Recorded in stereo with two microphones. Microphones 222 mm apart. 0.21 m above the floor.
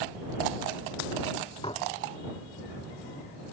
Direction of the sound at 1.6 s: 25° left (ahead or behind).